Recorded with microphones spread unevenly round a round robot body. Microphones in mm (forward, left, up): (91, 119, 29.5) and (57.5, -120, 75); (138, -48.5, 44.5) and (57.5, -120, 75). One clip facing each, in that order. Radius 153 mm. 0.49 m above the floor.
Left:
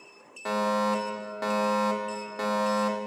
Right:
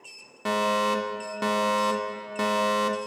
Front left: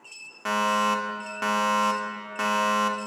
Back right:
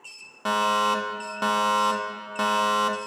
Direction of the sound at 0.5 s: 60° right.